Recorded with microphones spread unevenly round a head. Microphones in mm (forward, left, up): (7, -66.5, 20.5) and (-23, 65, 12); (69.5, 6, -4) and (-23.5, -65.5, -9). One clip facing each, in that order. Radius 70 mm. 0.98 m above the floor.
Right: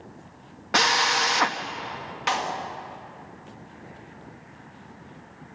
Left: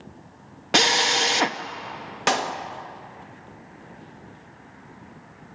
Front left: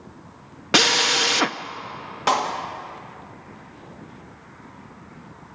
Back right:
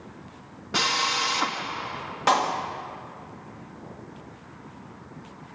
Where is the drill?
40° left, 0.6 m.